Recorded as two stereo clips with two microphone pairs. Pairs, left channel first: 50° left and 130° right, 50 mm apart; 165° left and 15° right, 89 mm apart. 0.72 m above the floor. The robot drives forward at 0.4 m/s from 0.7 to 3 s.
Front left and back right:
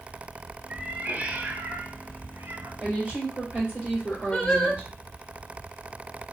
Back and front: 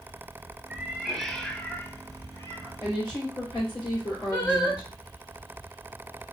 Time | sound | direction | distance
0.7 | a cat meowing | 80° right | 0.7 m
2.8 | a woman speaking | 150° left | 2.5 m
4.3 | singing | 135° left | 1.5 m